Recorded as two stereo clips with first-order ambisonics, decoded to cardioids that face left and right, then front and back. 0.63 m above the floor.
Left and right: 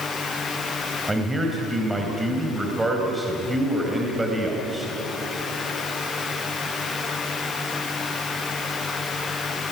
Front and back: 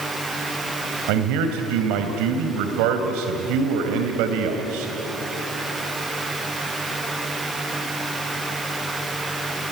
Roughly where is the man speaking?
Behind.